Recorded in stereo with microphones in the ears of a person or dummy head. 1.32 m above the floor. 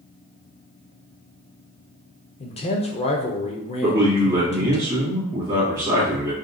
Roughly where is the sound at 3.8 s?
Centre.